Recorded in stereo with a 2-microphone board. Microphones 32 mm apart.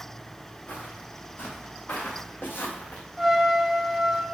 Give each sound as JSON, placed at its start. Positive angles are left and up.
{"t": 0.7, "sound": "footsteps", "side_deg": 65, "distance_m": 3.5}
{"t": 3.2, "sound": "a trumpet", "side_deg": -5, "distance_m": 1.0}